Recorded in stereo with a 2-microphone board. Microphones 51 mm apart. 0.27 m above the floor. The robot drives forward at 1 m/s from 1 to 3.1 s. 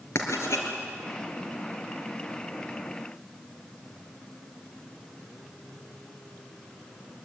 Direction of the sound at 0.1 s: 60° left (ahead or behind).